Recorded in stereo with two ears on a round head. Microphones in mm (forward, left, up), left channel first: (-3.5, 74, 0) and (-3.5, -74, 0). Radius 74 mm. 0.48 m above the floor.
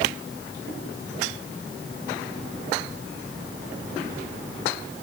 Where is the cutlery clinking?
No cutlery clinking in this recording.